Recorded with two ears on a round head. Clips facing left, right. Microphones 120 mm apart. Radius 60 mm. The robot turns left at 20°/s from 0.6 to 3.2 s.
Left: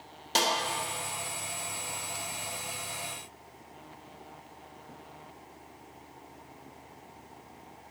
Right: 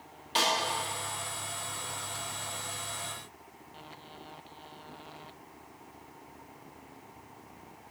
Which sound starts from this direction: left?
A snare drum, at 0.3 s.